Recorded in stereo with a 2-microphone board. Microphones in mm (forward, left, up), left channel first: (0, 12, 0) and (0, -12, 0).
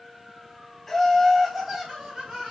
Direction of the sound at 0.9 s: 5° left (ahead or behind).